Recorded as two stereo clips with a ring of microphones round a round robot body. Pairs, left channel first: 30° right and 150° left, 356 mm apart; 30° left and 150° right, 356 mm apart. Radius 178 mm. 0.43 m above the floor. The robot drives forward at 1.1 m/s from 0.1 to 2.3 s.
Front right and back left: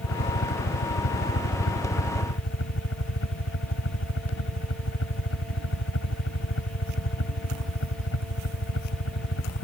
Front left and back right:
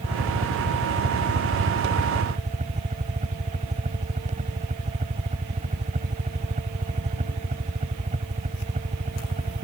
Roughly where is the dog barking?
I don't hear a dog barking.